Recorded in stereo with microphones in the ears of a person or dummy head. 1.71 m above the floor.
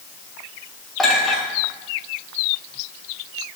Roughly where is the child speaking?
No child speaking in this recording.